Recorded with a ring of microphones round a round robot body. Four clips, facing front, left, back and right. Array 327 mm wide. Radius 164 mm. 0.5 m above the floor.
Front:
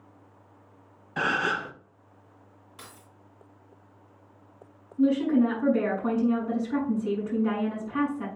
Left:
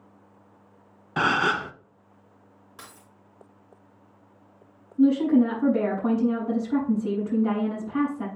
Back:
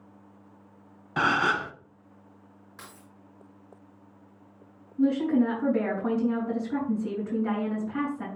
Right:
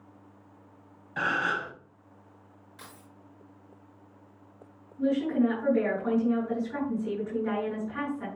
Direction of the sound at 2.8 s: 100° left.